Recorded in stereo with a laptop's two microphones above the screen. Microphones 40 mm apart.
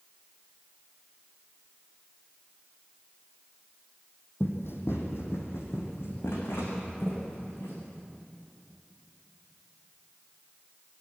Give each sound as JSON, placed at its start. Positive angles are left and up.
{"t": 4.4, "sound": "running footsteps", "side_deg": 65, "distance_m": 2.5}